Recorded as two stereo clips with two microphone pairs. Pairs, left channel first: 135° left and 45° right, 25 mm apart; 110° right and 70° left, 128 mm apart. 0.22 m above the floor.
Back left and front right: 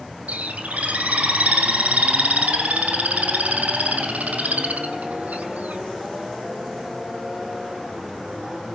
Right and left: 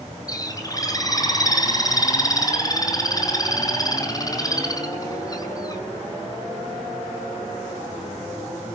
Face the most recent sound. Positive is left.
turn(degrees=-55)